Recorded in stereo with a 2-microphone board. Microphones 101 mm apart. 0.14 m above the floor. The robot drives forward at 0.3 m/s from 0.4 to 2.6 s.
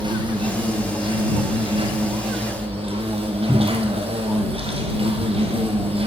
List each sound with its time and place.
0.0 s an insect: 50° right (ahead or behind), 1.5 m; by 6.1 s 75° right (ahead or behind), 1.2 m
3.5 s a cupboard door: 15° left (ahead or behind), 0.7 m